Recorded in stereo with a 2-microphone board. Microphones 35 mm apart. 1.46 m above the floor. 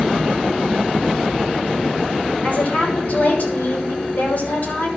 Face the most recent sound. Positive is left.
turn(degrees=50)  # may be behind; listen again after turning